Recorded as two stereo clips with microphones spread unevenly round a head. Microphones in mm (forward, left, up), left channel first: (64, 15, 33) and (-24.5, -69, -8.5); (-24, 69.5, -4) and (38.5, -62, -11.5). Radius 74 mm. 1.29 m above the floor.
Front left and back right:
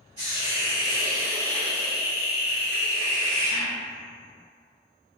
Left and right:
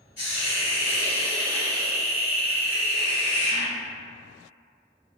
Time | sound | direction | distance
0.2 | a hiss | 145° left | 1.9 m